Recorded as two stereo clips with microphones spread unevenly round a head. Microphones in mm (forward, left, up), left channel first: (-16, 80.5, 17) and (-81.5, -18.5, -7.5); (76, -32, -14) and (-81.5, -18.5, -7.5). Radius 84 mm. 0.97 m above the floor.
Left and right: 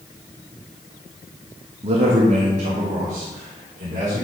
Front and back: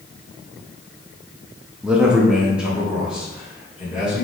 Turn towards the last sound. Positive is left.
turn(degrees=-100)